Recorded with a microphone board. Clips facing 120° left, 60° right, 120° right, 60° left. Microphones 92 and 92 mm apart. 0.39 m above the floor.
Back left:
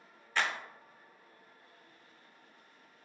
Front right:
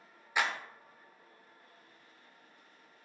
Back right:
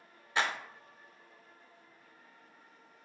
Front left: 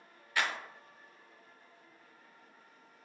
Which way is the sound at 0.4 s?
120° right.